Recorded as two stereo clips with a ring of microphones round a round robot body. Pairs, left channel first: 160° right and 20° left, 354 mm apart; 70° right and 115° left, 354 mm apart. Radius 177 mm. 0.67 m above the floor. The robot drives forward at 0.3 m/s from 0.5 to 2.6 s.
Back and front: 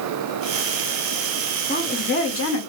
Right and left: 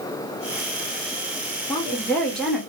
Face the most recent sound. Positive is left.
turn(degrees=-160)